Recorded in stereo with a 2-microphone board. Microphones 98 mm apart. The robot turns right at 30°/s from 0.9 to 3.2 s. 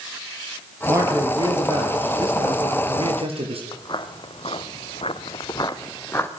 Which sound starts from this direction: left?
Footsteps, at 3.7 s.